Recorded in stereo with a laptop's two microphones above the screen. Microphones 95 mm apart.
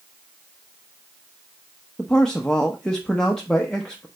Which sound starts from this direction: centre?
A man speaking, at 2.0 s.